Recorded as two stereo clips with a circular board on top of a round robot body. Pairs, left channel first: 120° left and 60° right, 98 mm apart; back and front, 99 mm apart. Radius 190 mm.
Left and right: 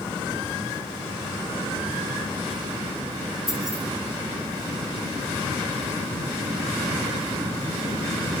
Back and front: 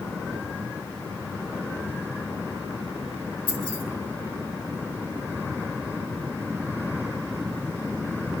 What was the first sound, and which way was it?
Keys jangling, 145° right.